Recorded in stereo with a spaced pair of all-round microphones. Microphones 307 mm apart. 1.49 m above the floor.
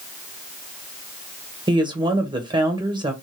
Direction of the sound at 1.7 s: 15° right (ahead or behind).